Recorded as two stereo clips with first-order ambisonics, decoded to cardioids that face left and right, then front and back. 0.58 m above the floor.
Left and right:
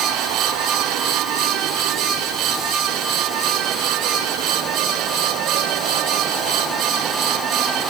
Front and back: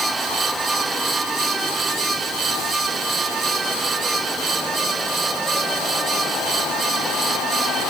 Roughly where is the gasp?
No gasp in this recording.